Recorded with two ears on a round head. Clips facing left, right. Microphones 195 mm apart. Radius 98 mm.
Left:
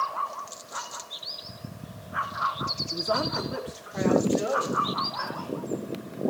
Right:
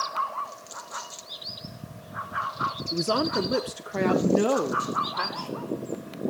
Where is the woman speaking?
30° right (ahead or behind), 0.6 m; by 5.9 s 75° right (ahead or behind), 2 m.